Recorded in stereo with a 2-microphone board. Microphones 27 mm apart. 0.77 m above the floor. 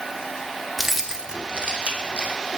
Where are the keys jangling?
10° right (ahead or behind), 1.0 m; by 2.4 s 65° right (ahead or behind), 1.7 m.